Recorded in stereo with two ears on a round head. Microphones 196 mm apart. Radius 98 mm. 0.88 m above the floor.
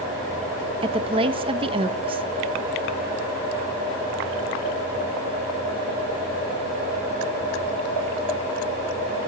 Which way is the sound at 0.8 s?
25° right (ahead or behind).